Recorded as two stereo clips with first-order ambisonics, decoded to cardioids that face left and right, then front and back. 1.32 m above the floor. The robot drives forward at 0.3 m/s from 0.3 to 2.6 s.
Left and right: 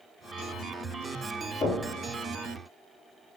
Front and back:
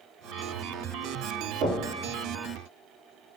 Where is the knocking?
150° left, 1.3 m.